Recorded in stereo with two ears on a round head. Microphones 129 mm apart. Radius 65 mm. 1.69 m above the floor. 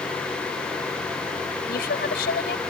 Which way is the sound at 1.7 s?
75° left (ahead or behind).